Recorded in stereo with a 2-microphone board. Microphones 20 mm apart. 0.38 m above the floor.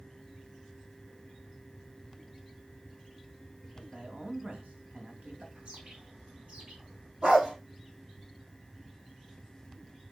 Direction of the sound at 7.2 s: 60° right (ahead or behind).